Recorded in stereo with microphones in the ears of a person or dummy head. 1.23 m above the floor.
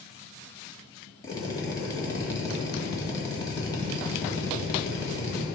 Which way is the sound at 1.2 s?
15° left (ahead or behind).